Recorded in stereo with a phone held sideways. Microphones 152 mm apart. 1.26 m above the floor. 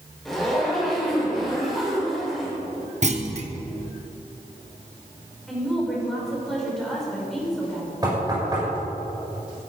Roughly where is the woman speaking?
Centre.